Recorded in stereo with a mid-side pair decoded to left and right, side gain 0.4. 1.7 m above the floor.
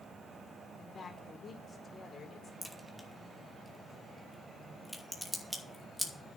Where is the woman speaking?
45° left, 4.5 m.